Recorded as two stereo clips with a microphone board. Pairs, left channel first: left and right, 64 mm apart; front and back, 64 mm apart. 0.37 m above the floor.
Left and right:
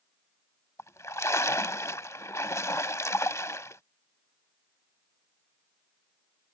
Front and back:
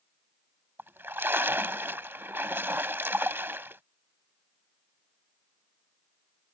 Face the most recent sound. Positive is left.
turn(degrees=125)